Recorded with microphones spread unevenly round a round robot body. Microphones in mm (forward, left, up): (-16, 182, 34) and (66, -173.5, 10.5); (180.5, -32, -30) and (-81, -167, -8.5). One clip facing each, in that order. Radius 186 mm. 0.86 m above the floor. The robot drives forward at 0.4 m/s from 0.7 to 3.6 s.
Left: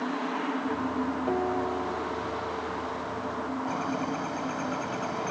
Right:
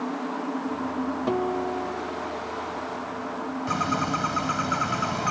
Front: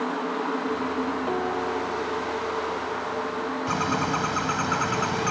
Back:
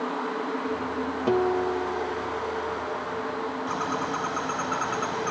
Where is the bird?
20° right.